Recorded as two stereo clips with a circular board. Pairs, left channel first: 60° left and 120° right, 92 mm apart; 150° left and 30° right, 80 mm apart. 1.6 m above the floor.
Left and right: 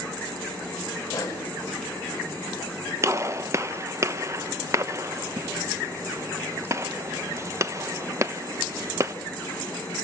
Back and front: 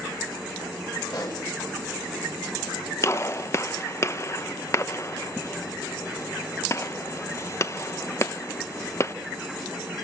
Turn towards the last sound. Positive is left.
turn(degrees=-170)